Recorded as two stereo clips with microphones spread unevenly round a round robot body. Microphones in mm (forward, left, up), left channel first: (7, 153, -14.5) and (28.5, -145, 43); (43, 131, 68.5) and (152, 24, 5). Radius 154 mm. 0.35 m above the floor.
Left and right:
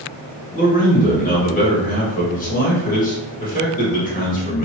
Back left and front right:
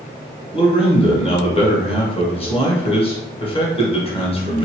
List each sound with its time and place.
0.5 s a man speaking: 70° left, 1.2 m